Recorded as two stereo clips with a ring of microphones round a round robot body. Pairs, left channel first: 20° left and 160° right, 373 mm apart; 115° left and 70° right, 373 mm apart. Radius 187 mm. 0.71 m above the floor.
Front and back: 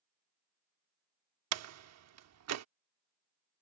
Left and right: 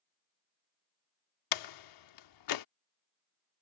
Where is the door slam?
150° left.